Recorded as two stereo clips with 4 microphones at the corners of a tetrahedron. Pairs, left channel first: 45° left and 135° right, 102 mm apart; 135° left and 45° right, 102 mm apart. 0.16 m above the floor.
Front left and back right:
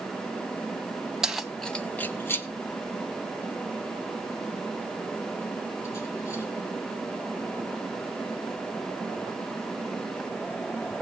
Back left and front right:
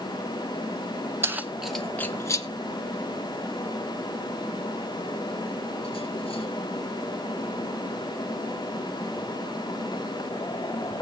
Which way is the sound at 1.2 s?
60° right.